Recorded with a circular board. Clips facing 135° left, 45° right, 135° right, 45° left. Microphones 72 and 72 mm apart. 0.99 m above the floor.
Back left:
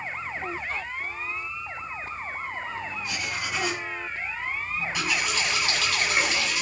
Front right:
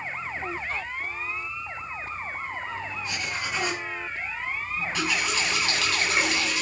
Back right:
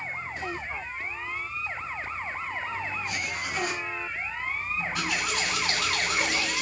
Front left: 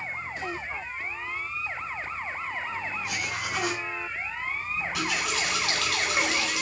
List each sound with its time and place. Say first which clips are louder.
3.0 s writing: even, front left 1 dB; 50° left, 3 m
4.8 s a running tap: front right 1 dB, front left 1 dB; 60° left, 4.5 m